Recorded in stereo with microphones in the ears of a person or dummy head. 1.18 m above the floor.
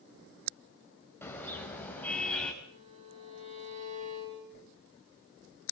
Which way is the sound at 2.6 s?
35° right (ahead or behind).